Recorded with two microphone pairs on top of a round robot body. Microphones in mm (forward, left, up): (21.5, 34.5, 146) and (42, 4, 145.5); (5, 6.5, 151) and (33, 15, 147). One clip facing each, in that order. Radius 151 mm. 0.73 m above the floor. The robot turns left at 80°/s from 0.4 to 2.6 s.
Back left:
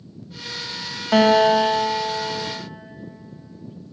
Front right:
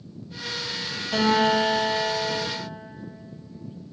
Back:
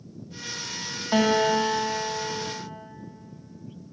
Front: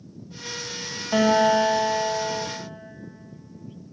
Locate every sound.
1.1 s a guitar: 135° left, 1.1 m; by 2.5 s 30° left, 1.1 m